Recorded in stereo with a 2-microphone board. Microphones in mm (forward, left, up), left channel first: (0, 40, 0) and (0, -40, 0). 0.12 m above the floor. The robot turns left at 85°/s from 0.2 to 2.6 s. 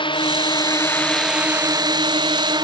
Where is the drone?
90° left; by 2.6 s 115° right.